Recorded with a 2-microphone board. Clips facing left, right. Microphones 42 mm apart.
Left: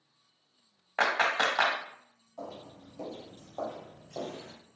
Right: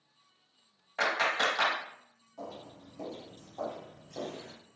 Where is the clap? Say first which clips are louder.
Left 2 dB; 45° left (ahead or behind), 1.3 m.